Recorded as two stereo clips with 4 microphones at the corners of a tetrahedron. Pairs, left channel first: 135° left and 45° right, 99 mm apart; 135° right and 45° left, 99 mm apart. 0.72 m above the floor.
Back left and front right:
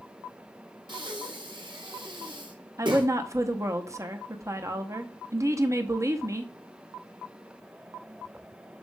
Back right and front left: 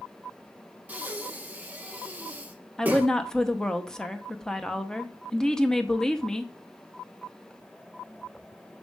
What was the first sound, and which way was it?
Breathing, 25° right.